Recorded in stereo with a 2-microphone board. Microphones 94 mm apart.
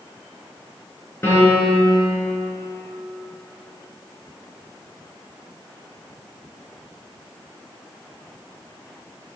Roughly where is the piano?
Left.